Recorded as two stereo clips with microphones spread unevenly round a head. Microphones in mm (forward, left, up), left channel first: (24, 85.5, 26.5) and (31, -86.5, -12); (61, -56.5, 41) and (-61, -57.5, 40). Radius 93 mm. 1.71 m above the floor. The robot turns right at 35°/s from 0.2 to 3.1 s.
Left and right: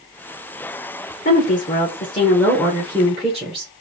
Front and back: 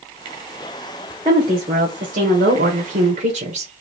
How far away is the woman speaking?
About 1.0 m.